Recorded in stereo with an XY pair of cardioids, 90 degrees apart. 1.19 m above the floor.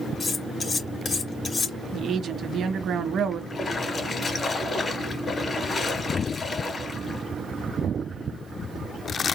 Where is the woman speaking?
65° right, 1.1 m.